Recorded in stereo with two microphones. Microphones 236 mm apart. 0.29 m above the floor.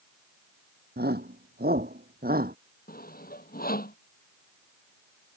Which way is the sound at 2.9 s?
40° left (ahead or behind).